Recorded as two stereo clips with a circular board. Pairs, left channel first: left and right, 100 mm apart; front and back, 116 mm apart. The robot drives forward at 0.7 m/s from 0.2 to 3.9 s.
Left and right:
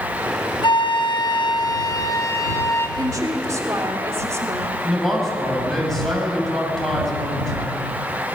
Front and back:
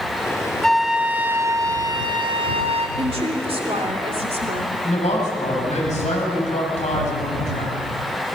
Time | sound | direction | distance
0.6 | a flute | 85° left | 1.1 m
3.0 | a woman speaking | 145° right | 2.5 m
4.8 | a man speaking | 5° left | 5.5 m